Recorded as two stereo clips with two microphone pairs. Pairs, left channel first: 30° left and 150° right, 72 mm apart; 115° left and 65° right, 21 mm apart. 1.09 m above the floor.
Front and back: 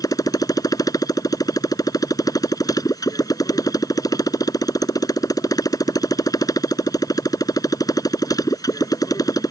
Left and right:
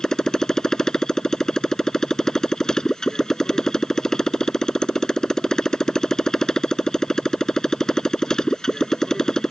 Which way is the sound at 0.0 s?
55° left.